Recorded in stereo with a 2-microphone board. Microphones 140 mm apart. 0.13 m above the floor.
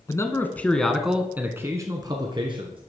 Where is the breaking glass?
I don't hear breaking glass.